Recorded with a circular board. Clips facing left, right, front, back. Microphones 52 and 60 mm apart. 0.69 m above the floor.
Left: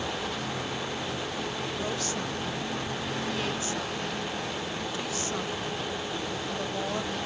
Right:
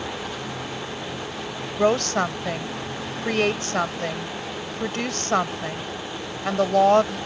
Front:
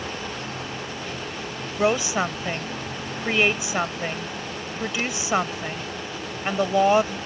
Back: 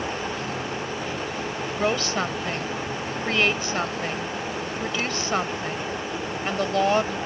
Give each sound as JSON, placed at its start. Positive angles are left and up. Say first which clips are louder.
{"t": 1.8, "sound": "a woman speaking", "louder": "right 16 dB, front 3 dB", "azimuth_deg": -75}